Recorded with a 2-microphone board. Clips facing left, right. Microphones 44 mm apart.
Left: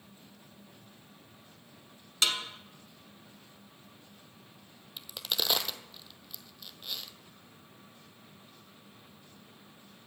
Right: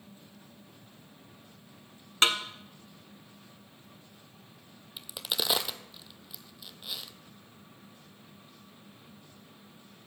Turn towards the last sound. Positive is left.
turn(degrees=-5)  # may be behind; listen again after turning